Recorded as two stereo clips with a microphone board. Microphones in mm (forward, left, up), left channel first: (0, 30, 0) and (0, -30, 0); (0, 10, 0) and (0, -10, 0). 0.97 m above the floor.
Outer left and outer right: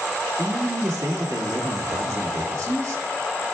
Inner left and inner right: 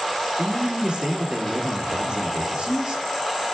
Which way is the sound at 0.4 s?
60° right (ahead or behind).